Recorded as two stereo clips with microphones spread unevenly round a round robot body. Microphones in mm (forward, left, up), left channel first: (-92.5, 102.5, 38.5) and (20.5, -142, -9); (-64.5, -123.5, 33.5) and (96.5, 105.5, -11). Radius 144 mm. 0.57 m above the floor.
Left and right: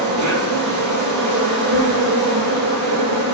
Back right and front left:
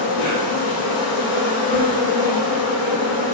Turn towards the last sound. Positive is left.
turn(degrees=-80)